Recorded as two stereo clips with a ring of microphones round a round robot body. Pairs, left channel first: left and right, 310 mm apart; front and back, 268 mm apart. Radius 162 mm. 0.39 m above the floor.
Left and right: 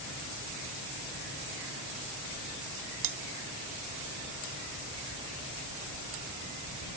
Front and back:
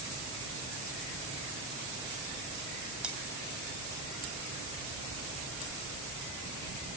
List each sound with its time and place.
3.0 s cutlery clinking: 95° right, 1.7 m